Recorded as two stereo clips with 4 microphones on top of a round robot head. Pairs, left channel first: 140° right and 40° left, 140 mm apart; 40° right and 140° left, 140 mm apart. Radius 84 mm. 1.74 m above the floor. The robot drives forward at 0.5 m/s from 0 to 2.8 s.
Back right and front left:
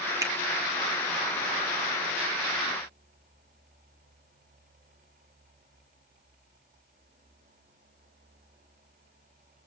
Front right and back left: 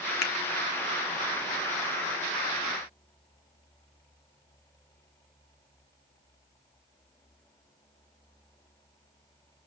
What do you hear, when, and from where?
0.2 s a finger snap: 25° right, 1.2 m; by 0.3 s 30° right, 1.1 m